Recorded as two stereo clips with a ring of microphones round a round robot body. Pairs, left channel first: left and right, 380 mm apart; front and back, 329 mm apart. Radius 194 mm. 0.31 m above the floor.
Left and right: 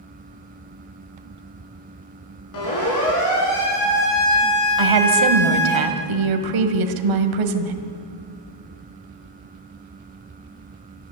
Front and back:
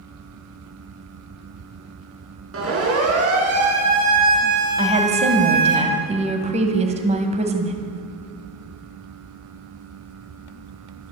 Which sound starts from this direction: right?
A woman speaking, at 4.8 s.